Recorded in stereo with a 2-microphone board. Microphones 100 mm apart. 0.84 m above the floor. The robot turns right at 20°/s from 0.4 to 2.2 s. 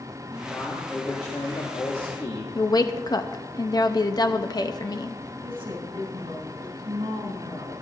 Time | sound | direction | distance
0.3 | a man speaking | 30° left | 1.6 m
2.5 | a woman speaking | 40° left (ahead or behind) | 0.7 m
5.4 | a woman speaking | 60° right (ahead or behind) | 4 m